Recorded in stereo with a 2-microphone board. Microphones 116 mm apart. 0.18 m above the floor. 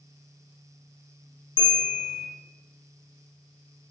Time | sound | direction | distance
1.6 | a bell | 45° left (ahead or behind) | 3 m